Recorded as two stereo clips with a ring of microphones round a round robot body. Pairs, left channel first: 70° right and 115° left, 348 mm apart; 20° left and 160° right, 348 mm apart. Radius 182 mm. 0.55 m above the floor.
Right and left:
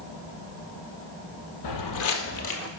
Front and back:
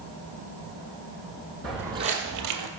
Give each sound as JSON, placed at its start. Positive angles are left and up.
{"t": 1.6, "sound": "footsteps", "azimuth_deg": -65, "distance_m": 0.9}